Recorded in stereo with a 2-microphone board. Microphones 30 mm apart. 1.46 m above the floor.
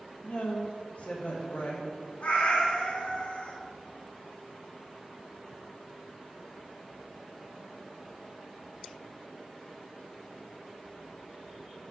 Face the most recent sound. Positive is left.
turn(degrees=55)  # may be behind; listen again after turning